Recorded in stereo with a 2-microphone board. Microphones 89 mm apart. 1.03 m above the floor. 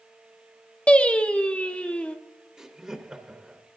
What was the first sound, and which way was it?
Singing, 15° left (ahead or behind).